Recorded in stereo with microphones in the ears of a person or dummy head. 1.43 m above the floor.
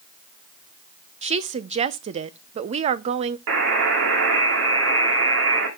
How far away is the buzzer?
About 2.5 m.